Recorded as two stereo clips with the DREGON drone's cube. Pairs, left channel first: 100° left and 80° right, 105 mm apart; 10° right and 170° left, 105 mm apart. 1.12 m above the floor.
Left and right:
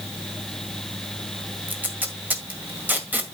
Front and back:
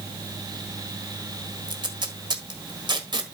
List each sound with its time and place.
1.7 s tape being pulled: 150° right, 1.6 m